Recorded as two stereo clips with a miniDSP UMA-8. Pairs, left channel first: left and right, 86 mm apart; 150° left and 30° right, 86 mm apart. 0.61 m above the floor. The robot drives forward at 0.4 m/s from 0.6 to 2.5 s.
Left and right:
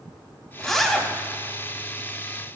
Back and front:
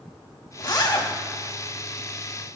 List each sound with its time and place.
0.6 s a zipper: 175° left, 1.4 m